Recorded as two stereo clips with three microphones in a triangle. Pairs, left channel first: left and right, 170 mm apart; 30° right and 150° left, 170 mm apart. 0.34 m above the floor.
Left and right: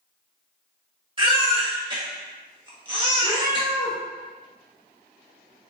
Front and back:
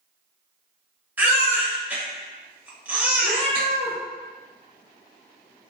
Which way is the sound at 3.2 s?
165° right.